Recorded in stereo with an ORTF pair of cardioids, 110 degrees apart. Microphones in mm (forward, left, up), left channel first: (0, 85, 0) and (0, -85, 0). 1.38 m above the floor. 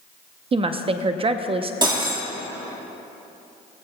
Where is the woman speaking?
35° right, 0.7 m.